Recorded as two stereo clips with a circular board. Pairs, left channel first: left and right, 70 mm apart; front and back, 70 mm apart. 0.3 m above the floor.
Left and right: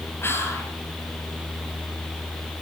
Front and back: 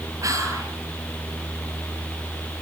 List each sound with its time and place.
0.2 s whispering: 140° left, 6.5 m